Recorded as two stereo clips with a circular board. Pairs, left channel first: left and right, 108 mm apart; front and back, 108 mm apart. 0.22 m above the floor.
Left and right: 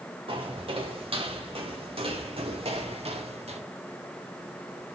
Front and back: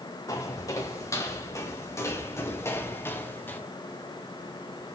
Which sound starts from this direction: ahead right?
Footsteps, at 0.3 s.